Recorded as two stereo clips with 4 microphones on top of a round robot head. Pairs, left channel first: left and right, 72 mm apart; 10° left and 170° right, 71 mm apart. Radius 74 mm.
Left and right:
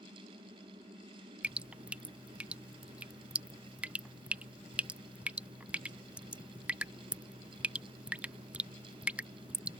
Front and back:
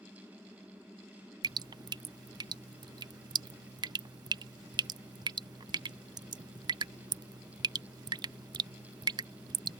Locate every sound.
1.4 s dripping: 160° right